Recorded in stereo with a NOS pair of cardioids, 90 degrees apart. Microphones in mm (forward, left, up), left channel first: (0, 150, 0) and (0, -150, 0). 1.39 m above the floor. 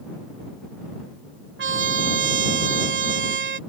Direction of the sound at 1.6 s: 40° right.